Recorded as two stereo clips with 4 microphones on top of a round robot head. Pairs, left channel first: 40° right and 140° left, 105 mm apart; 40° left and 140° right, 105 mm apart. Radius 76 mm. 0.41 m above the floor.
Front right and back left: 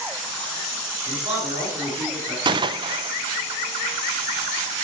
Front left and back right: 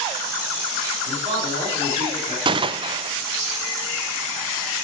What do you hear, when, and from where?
1.1 s a man speaking: straight behind, 4.5 m
2.5 s a gunshot: 175° right, 0.7 m